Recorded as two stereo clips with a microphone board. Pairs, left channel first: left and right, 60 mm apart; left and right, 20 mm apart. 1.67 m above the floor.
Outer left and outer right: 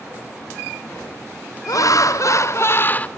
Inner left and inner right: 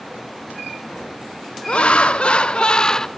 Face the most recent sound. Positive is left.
turn(degrees=25)  # may be behind; listen again after turning